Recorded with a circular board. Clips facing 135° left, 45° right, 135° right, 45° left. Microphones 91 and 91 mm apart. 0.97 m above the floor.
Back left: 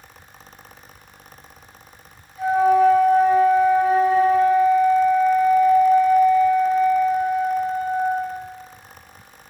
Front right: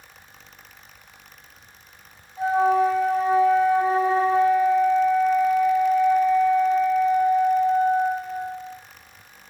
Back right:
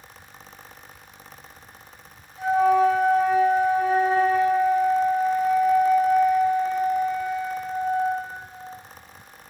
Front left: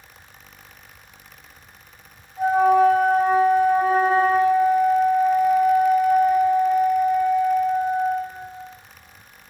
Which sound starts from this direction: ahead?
A flute, at 2.4 s.